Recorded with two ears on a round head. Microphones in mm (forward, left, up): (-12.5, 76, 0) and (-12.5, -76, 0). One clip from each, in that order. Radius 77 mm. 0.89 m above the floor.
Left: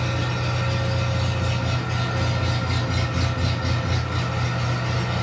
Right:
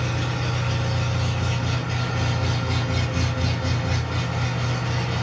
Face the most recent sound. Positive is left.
turn(degrees=-10)  # may be behind; listen again after turning